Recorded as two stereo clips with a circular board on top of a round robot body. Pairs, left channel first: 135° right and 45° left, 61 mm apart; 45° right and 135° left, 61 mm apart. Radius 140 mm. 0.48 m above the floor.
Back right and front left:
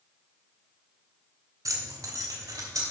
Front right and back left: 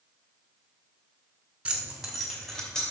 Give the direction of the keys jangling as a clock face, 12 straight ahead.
10 o'clock.